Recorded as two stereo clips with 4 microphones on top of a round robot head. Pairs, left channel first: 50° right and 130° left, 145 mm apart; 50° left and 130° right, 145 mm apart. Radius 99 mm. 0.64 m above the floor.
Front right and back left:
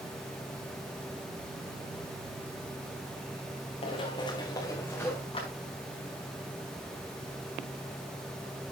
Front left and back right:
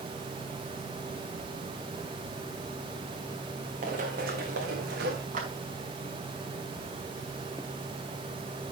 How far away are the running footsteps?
About 2.5 m.